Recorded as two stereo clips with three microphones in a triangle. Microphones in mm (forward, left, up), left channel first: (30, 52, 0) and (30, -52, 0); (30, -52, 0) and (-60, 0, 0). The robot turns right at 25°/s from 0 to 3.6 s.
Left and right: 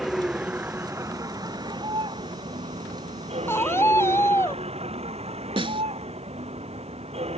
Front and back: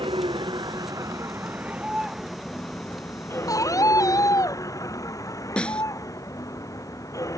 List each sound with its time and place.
0.0 s a vehicle: 175° right; by 7.4 s 85° right
3.5 s a scream: 20° left; by 4.6 s 25° left
5.6 s a snare drum: 110° right